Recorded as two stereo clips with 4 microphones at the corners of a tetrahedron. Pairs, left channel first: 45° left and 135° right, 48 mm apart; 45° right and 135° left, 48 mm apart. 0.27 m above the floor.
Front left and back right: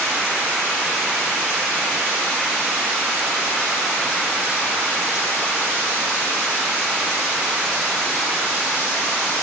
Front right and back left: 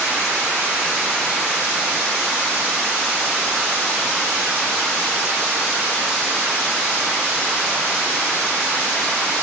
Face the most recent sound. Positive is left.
No sound to turn to.